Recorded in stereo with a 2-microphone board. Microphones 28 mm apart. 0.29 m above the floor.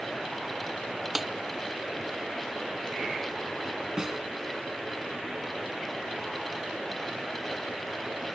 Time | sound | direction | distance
1.1 | a snare drum | 10° right (ahead or behind) | ?
4.0 | a snare drum | 20° right (ahead or behind) | ?